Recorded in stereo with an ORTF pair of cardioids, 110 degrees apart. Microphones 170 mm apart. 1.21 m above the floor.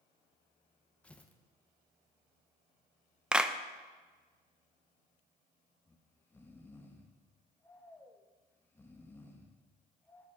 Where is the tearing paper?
10° left, 1.0 m.